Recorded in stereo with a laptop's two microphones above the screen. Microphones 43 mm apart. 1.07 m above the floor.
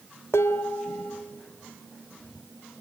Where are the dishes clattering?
85° left, 1.4 m.